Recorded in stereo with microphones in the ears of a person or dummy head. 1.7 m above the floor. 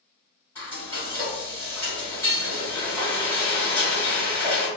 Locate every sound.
0.6 s frying: 15° left (ahead or behind), 1.9 m